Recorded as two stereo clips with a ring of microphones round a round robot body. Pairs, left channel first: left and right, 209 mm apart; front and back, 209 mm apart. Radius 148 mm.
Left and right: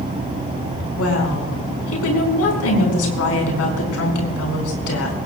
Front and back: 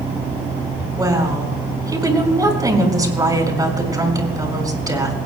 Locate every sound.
1.0 s a woman speaking: 105° left, 4.5 m